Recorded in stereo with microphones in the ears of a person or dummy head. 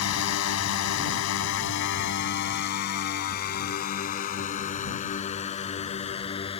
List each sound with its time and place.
0.0 s a drone: 85° left; by 6.6 s 35° left (ahead or behind)